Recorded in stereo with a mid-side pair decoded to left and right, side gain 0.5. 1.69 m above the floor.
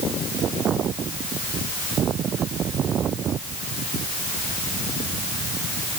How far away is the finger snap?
No finger snap in this recording.